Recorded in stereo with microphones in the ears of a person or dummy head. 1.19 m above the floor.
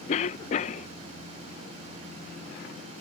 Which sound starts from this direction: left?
A cough, at 0.1 s.